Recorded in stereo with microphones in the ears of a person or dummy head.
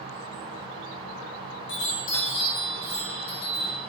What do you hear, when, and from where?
1.7 s a chime: 65° left (ahead or behind), 1.3 m